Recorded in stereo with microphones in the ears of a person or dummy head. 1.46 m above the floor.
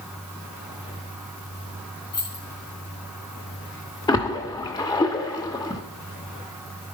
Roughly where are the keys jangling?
Left.